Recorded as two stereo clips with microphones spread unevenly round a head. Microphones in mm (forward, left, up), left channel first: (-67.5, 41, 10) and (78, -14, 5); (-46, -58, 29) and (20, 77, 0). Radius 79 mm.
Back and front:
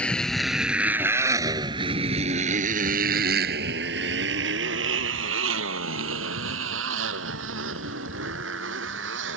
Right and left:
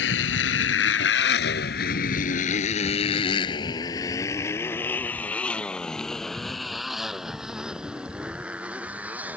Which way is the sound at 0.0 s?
115° right.